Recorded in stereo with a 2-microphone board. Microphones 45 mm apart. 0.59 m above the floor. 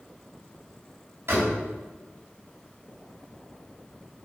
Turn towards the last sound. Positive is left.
turn(degrees=-60)  # may be behind; listen again after turning